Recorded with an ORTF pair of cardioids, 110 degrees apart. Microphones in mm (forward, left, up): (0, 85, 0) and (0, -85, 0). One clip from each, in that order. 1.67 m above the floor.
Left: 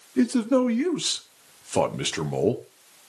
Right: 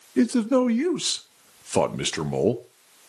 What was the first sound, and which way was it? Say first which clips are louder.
A man speaking: right 1 dB; 15° right.